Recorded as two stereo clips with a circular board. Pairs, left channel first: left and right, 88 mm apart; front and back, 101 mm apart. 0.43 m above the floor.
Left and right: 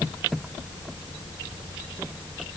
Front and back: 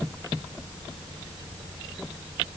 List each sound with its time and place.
Only background noise.